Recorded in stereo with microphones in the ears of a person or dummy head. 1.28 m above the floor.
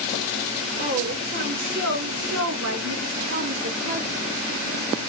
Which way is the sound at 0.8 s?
40° right (ahead or behind).